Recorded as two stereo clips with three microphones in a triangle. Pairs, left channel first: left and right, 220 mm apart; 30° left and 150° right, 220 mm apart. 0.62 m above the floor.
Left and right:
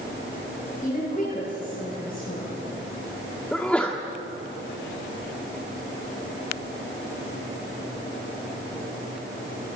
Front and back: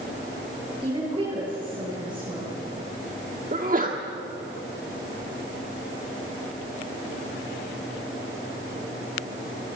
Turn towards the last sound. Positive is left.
turn(degrees=175)